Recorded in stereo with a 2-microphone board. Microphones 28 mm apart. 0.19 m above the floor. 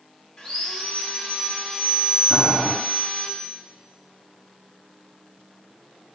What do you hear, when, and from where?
0.4 s sawing: 10° left (ahead or behind), 1.4 m
2.3 s boiling: 50° right (ahead or behind), 2 m